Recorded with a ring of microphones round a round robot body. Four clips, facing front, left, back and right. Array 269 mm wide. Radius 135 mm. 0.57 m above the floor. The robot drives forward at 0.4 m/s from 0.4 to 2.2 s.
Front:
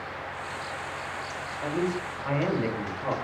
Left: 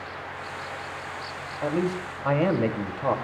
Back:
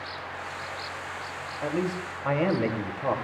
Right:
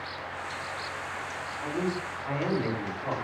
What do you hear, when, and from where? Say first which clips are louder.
1.6 s a man speaking: left 5 dB, even; 105° left, 2.5 m; by 3.1 s 110° left, 2.5 m